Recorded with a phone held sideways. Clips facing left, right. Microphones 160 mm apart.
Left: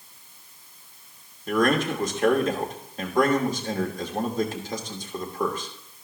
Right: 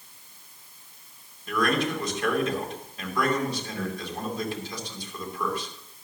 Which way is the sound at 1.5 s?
45° left (ahead or behind).